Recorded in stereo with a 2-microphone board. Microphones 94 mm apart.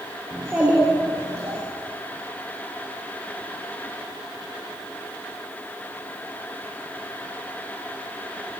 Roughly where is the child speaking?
Centre.